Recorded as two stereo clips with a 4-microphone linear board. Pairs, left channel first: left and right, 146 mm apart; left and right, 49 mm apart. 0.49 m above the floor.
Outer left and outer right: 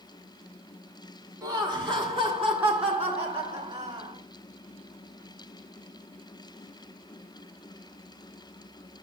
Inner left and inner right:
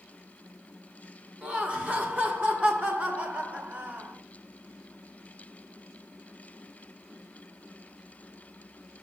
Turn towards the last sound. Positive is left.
turn(degrees=-45)  # may be behind; listen again after turning